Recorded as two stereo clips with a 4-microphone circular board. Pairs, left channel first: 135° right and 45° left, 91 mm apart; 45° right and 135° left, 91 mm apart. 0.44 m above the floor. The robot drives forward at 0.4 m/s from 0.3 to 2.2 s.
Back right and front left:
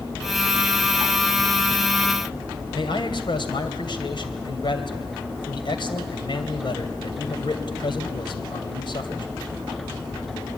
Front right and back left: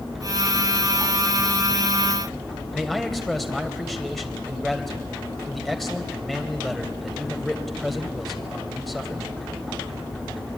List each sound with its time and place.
2.7 s a man speaking: 135° right, 3 m